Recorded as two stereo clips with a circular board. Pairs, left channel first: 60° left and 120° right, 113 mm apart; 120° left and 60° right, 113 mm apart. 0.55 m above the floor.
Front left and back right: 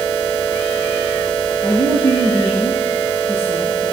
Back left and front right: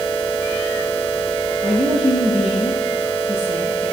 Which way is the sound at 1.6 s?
90° left.